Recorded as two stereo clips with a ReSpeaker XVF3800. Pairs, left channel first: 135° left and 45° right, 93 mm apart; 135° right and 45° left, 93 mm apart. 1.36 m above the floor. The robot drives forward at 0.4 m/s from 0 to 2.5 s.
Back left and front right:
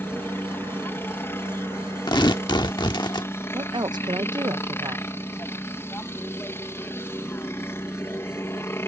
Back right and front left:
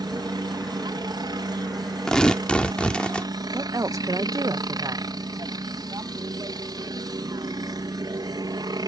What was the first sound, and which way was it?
A helicopter, 70° left.